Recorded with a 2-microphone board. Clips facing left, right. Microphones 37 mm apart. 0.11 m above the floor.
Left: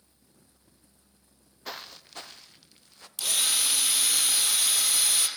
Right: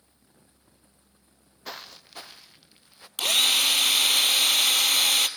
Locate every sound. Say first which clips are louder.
1.6 s footsteps: even; centre (ahead or behind), 0.7 m; by 3.1 s 10° right (ahead or behind), 1.5 m
3.2 s a drill: right 7 dB; 50° right (ahead or behind), 1.3 m